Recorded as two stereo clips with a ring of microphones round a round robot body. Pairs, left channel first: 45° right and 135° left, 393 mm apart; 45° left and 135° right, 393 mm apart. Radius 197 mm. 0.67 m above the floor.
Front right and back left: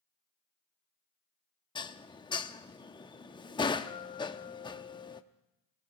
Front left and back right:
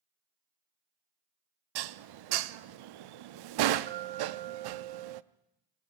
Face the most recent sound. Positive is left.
turn(degrees=-120)